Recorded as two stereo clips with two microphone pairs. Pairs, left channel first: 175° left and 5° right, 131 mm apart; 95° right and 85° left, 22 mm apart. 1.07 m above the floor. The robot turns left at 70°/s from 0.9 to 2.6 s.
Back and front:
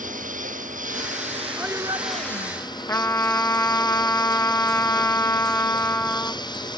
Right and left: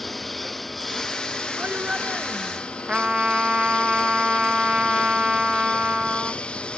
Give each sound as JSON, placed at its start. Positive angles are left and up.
{"t": 0.0, "sound": "a lawn mower", "azimuth_deg": -10}
{"t": 1.6, "sound": "a shout", "azimuth_deg": 75}
{"t": 2.9, "sound": "a trumpet", "azimuth_deg": 110}